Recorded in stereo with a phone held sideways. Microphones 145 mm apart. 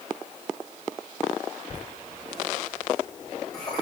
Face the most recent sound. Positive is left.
turn(degrees=30)  # may be behind; listen again after turning